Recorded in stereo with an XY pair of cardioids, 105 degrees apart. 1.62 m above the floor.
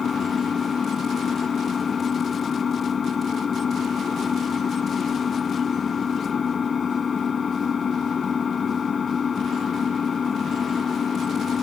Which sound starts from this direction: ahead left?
An engine running, at 0.0 s.